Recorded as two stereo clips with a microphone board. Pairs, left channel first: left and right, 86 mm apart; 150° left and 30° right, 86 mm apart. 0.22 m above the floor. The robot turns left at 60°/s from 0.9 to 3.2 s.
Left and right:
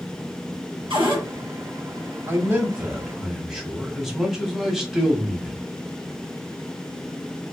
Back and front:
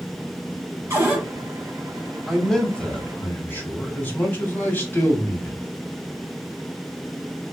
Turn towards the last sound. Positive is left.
turn(degrees=-175)